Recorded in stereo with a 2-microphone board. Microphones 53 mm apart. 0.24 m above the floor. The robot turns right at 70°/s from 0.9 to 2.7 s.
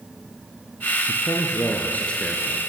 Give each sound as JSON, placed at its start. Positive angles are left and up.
{"t": 1.1, "sound": "a man speaking", "azimuth_deg": 85, "distance_m": 4.0}